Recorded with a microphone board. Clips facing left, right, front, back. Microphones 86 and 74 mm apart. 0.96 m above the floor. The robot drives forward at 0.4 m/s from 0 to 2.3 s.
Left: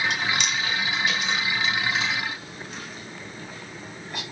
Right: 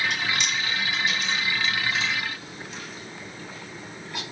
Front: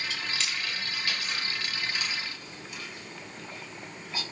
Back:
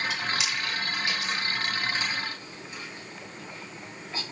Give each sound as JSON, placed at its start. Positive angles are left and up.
{"t": 0.1, "sound": "chewing", "azimuth_deg": 100, "distance_m": 1.5}